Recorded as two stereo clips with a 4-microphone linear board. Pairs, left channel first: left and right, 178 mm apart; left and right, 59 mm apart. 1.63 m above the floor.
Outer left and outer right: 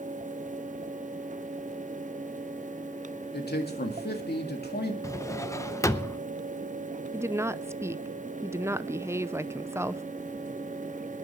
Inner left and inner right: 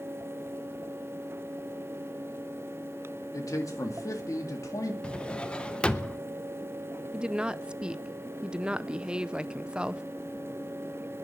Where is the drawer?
15° left (ahead or behind), 0.7 m.